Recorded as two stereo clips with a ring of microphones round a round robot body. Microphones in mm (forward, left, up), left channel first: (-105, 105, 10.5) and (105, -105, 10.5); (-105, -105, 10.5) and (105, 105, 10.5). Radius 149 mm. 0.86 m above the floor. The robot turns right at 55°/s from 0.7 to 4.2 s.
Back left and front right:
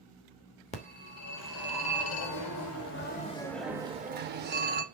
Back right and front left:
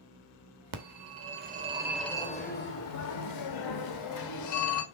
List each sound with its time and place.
0.7 s a phone ringing: 65° left, 1.2 m; by 4.8 s 105° right, 1.2 m